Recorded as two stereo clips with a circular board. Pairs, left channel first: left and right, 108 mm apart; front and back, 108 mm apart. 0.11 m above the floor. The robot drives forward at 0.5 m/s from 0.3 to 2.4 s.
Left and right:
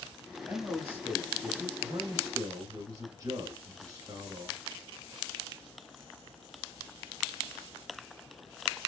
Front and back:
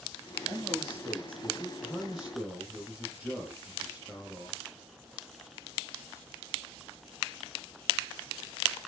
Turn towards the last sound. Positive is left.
turn(degrees=-110)